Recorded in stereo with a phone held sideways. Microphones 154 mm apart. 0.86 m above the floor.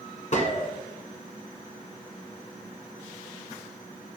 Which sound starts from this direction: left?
A gunshot, at 0.3 s.